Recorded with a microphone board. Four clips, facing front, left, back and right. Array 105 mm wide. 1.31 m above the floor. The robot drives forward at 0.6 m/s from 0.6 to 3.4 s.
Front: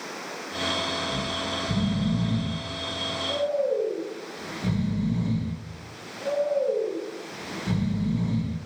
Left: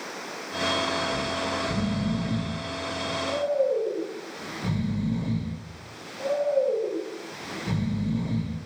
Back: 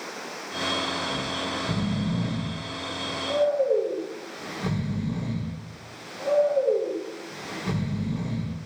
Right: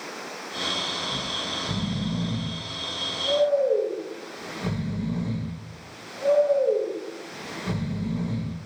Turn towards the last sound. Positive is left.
turn(degrees=-155)